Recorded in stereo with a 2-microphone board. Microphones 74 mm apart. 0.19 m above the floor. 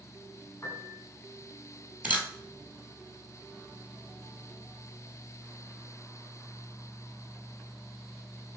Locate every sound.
0.6 s a piano: 20° left (ahead or behind), 1.2 m
2.0 s a camera shutter: 20° right (ahead or behind), 1.0 m